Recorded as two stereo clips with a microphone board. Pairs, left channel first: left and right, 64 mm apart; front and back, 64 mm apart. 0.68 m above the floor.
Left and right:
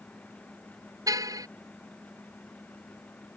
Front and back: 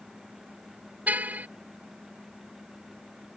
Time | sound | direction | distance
1.1 | a car horn | 115° right | ?